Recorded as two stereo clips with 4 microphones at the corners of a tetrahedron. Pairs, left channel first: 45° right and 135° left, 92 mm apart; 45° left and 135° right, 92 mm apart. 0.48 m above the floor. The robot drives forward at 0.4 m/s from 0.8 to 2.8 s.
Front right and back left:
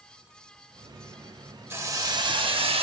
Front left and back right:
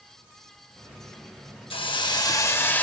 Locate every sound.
1.7 s a hiss: 70° left, 0.5 m; by 2.8 s 120° left, 0.5 m